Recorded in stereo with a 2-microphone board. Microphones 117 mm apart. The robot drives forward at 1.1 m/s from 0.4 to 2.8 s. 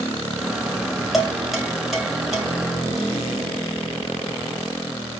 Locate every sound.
1.1 s dishes clattering: centre (ahead or behind), 2.5 m